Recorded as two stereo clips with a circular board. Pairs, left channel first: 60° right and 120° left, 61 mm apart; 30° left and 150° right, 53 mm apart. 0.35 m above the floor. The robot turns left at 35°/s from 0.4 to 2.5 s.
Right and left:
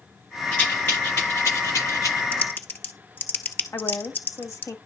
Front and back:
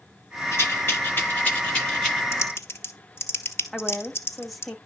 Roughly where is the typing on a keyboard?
Ahead.